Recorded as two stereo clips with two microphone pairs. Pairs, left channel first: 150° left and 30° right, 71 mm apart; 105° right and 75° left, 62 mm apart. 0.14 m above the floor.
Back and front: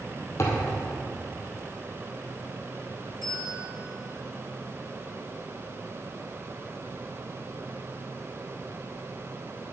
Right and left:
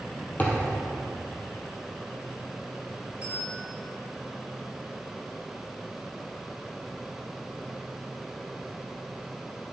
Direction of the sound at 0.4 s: 165° right.